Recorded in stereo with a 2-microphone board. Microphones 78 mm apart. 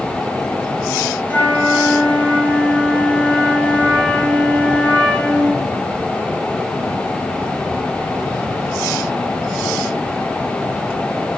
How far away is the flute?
About 2.5 m.